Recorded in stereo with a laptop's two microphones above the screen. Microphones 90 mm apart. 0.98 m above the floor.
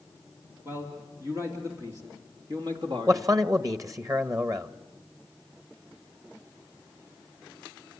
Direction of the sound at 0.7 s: 30° right (ahead or behind).